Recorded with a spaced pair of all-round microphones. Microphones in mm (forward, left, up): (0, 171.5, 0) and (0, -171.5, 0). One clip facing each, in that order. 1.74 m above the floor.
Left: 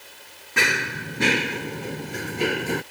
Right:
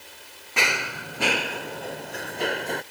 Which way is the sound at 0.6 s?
25° left (ahead or behind).